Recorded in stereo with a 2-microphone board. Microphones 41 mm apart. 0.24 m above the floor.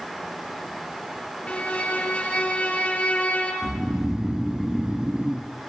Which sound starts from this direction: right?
Snoring, at 3.6 s.